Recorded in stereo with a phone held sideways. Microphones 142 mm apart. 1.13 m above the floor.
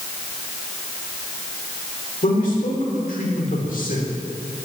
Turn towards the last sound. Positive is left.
turn(degrees=70)  # may be behind; listen again after turning